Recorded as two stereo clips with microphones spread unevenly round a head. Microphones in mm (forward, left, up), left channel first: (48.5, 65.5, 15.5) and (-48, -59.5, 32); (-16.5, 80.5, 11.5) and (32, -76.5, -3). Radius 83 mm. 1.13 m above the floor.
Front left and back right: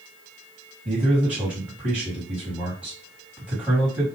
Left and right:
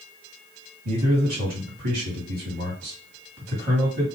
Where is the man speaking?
45° right, 1.8 m.